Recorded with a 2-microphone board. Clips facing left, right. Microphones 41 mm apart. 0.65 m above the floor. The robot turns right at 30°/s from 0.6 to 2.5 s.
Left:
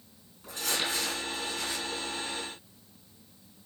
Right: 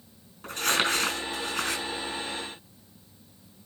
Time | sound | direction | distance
0.4 | crumpling | 55° right (ahead or behind) | 4 m